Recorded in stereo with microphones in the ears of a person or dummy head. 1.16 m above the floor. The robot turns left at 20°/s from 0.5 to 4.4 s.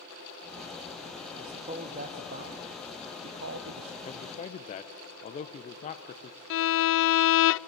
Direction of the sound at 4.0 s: 30° left (ahead or behind).